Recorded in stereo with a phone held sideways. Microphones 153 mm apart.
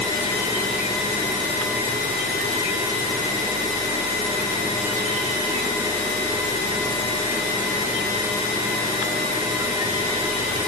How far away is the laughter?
I don't hear laughter.